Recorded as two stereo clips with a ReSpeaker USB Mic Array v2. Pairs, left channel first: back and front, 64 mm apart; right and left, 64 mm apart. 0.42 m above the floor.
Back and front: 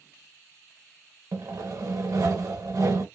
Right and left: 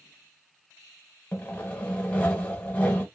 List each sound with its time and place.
1.3 s sawing: 25° right, 1.0 m